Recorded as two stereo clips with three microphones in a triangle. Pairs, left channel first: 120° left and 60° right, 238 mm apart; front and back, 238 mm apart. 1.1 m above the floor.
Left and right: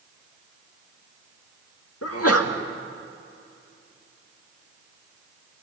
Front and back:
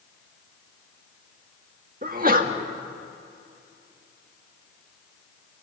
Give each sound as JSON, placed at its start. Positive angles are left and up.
{"t": 2.0, "sound": "a sneeze", "azimuth_deg": 130, "distance_m": 1.7}